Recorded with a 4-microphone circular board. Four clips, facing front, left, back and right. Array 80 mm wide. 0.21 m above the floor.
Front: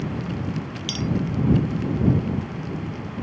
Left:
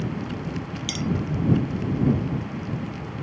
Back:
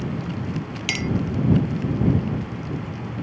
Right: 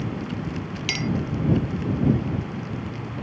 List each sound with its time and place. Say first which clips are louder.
0.9 s a clink: right 1 dB, back 1 dB; 150° right